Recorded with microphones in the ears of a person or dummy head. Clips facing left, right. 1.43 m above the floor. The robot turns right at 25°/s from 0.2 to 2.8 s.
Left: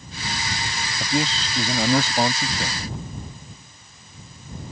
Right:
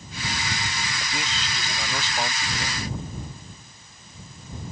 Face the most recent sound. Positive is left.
turn(degrees=70)